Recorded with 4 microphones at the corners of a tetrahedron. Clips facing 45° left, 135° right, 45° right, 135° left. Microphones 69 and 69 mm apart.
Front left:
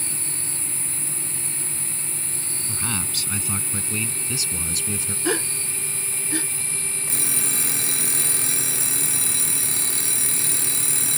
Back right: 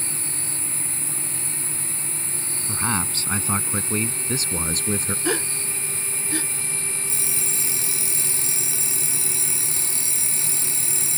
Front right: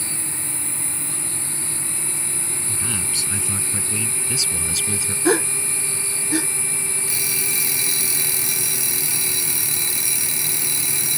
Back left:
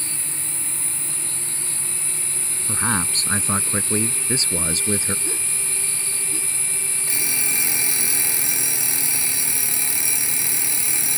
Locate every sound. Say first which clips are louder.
2.7 s a man speaking: back right 5 dB, back left 9 dB; 170° left; by 5.2 s 175° right
5.2 s a gasp: front left 2 dB, front right 13 dB; 45° right
7.1 s an alarm clock: front left 2 dB, back left 3 dB; 70° left